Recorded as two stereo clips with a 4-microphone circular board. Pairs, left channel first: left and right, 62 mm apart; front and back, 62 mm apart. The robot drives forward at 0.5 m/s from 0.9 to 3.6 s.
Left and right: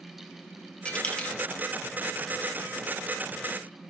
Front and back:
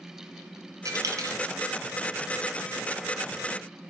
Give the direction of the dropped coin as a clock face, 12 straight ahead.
7 o'clock.